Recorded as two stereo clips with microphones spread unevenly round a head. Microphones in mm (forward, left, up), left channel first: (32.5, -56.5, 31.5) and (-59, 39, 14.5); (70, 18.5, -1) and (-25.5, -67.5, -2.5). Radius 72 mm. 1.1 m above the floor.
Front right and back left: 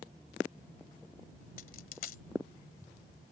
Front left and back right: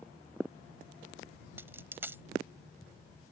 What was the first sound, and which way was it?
A dropped coin, 65° right.